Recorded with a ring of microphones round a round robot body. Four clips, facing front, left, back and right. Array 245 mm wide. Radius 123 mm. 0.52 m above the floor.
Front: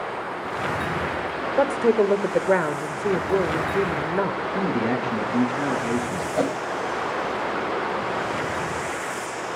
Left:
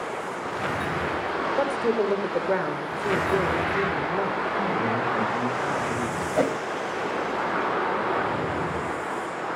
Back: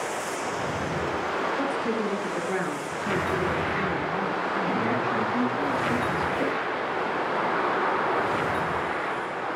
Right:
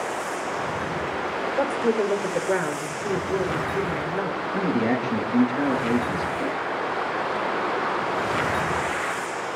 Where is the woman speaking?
Straight ahead, 1.6 m.